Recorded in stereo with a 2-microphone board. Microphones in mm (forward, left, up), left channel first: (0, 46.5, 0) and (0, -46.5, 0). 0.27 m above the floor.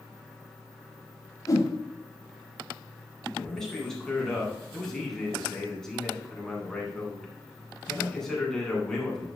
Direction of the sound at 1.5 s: 35° left (ahead or behind).